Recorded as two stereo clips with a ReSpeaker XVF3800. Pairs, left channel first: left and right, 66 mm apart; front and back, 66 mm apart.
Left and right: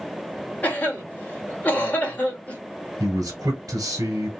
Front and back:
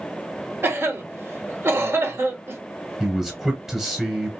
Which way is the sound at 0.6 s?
145° left.